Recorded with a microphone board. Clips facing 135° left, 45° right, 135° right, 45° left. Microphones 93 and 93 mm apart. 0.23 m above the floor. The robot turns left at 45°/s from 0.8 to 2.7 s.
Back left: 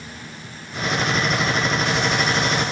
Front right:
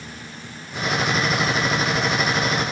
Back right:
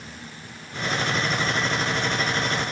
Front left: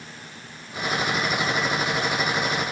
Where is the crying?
No crying in this recording.